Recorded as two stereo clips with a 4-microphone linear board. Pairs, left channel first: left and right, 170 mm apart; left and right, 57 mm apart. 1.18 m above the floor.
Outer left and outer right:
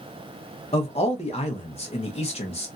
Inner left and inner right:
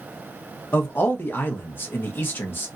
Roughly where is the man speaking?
Left.